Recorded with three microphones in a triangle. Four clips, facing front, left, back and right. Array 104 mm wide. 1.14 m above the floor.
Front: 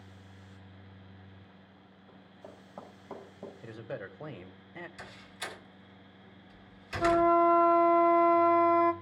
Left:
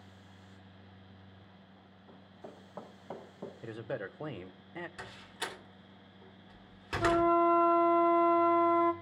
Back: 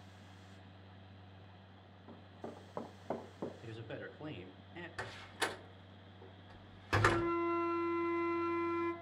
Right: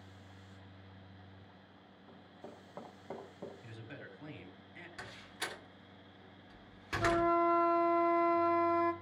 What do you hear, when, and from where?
2.1 s running footsteps: 170° right, 4 m; by 3.5 s 170° left, 4 m
3.6 s a man speaking: 70° left, 1.1 m
5.0 s a door slam: 170° left, 2.5 m
7.0 s a flute: 15° left, 0.7 m